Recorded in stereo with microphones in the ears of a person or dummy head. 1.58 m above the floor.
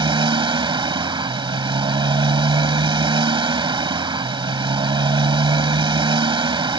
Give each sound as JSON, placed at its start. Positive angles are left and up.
{"t": 0.0, "sound": "a motorcycle", "side_deg": -30}